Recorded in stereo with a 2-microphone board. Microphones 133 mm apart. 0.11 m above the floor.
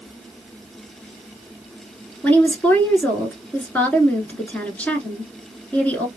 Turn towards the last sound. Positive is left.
turn(degrees=15)  # may be behind; listen again after turning